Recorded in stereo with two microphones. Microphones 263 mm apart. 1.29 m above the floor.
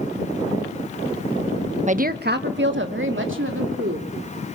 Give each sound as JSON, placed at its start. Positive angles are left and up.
{"t": 1.9, "sound": "a woman speaking", "side_deg": -25, "distance_m": 0.8}